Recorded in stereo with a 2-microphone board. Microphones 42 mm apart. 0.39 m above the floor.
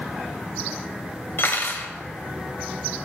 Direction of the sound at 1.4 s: 65° left (ahead or behind).